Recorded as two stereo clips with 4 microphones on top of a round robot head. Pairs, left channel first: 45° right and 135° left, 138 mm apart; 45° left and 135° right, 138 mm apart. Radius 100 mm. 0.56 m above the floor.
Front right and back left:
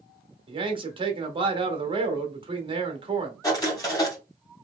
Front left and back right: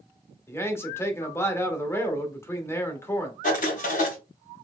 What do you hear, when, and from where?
0.5 s a man speaking: 105° left, 1.1 m
3.4 s writing: 25° left, 2 m